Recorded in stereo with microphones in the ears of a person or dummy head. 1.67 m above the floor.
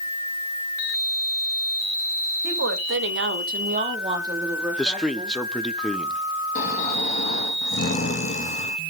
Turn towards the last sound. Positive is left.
turn(degrees=45)  # may be behind; listen again after turning